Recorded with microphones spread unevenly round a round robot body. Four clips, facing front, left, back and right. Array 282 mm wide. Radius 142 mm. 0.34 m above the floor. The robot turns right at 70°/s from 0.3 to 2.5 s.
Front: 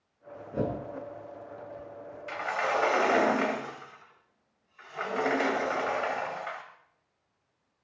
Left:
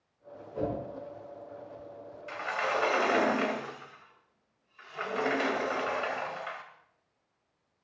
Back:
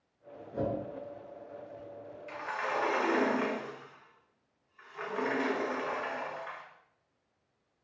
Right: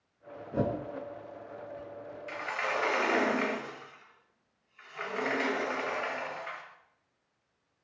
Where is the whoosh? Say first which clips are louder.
Right 2 dB, front 2 dB; 70° right, 5.5 m; by 0.7 s 55° right, 5.5 m.